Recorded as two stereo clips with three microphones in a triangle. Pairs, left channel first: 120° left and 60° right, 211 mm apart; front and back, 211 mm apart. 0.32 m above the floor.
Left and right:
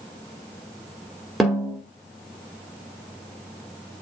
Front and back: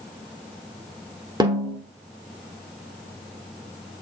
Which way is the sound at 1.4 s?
150° right.